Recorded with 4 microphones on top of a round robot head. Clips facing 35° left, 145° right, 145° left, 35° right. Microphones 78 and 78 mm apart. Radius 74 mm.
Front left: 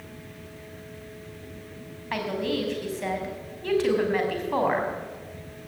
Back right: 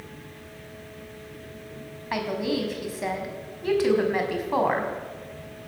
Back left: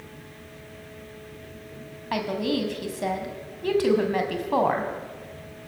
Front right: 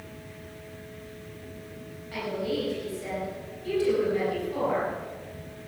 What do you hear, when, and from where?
2.1 s a woman speaking: 130° left, 5 m